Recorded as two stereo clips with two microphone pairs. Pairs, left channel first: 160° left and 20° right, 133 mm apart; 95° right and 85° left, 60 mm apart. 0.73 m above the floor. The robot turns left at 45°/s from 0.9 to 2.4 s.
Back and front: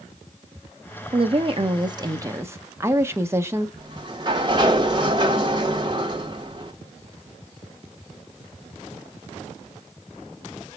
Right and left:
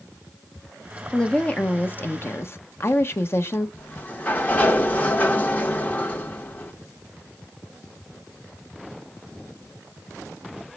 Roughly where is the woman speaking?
Ahead.